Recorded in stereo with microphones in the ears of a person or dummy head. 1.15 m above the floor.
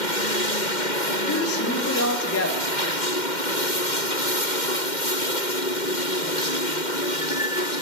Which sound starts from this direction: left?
A woman speaking, at 1.3 s.